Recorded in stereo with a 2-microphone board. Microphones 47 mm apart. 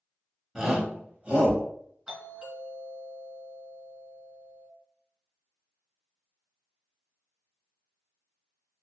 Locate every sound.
0.6 s a shout: 10° right (ahead or behind), 1.0 m; by 1.6 s 30° right (ahead or behind), 1.0 m
2.1 s a doorbell: 15° right (ahead or behind), 1.6 m